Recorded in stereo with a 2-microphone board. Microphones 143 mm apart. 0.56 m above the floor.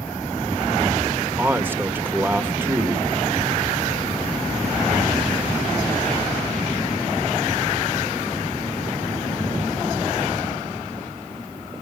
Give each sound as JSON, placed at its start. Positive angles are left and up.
{"t": 1.4, "sound": "a man speaking", "side_deg": -15, "distance_m": 1.5}